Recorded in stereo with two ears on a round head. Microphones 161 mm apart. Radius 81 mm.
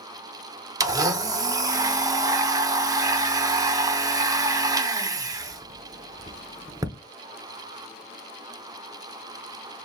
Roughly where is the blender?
Centre.